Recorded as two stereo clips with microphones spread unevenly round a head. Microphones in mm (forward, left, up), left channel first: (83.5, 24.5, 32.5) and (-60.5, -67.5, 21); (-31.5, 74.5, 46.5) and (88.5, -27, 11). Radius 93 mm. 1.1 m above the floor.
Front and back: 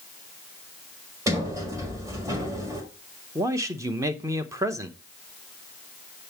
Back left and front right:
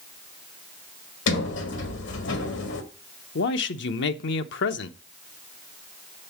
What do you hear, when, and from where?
1.3 s a sliding door: 140° left, 1.6 m
3.4 s a man speaking: 140° left, 0.8 m